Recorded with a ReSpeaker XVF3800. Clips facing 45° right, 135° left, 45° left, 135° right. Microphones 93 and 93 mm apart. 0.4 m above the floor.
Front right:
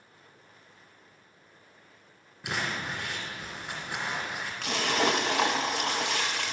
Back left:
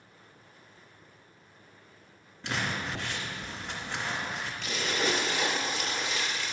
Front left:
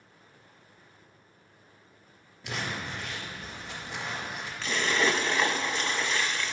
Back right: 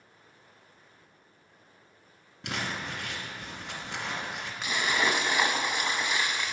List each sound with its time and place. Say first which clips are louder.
2.4 s crumpling: even, even; 125° right, 2.5 m
4.6 s a splash: front right 4 dB, front left 1 dB; 60° right, 0.6 m